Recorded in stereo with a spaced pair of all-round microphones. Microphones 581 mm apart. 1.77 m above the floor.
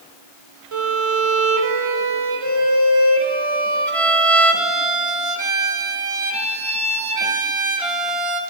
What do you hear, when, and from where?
0.7 s a violin: 65° right (ahead or behind), 0.9 m